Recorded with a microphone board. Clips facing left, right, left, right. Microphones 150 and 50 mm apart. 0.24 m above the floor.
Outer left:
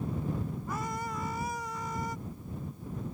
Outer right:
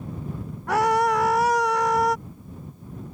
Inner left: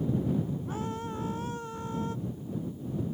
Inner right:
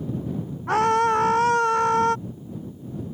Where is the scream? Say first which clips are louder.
Outer right 21 dB, inner right 16 dB; 75° right (ahead or behind).